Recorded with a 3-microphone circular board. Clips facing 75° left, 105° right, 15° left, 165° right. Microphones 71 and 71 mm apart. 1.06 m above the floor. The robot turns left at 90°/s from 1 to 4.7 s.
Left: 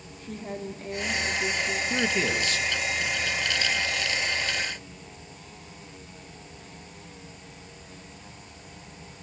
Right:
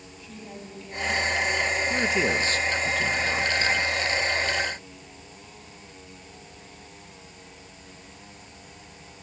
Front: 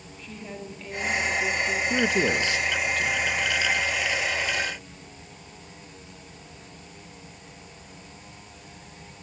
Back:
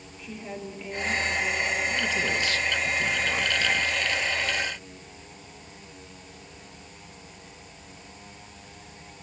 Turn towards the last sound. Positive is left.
turn(degrees=110)